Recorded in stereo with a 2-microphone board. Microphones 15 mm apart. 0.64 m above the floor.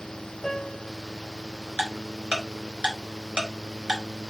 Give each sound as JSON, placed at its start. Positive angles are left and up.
{"t": 0.4, "sound": "a piano", "side_deg": 15, "distance_m": 2.5}
{"t": 1.8, "sound": "ticking", "side_deg": -65, "distance_m": 3.5}